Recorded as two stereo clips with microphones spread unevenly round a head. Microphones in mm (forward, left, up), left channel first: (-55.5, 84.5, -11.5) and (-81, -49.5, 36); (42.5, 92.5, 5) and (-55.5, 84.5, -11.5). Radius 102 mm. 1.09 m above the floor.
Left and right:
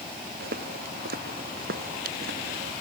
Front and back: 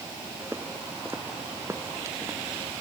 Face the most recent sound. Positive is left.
turn(degrees=-100)